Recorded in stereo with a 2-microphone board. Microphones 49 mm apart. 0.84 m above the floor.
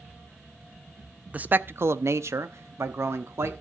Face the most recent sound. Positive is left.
turn(degrees=-60)  # may be behind; listen again after turning